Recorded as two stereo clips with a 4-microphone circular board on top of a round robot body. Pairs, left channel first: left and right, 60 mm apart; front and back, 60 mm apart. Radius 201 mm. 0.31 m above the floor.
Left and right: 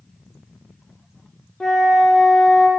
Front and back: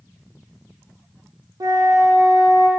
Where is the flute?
170° left, 1.1 m.